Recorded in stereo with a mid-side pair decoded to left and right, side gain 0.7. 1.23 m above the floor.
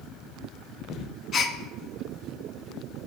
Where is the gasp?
40° left, 0.6 m.